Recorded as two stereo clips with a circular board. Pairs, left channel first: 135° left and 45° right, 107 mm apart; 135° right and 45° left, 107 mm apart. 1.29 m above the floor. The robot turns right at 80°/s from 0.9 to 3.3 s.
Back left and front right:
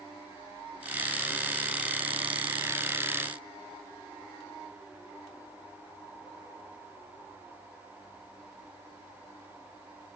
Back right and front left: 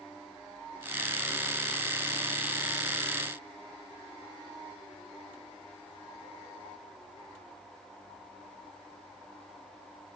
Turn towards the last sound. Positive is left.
No sound to turn to.